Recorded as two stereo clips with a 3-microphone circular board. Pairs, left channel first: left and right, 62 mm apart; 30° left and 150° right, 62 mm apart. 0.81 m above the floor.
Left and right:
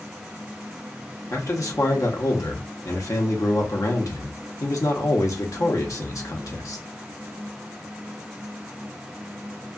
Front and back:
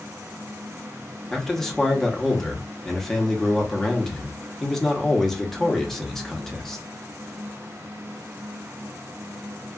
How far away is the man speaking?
About 0.8 m.